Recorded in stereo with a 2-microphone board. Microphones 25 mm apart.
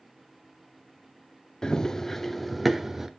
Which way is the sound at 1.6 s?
25° left (ahead or behind).